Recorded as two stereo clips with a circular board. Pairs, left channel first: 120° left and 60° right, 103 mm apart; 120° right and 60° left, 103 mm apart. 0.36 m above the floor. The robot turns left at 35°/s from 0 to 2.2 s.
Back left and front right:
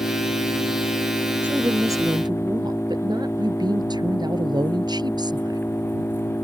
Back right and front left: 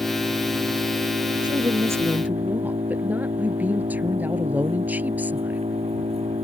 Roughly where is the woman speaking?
Ahead.